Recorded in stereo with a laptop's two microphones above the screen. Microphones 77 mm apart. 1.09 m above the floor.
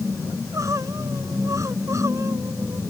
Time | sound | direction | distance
0.3 | crying | 45° right (ahead or behind) | ?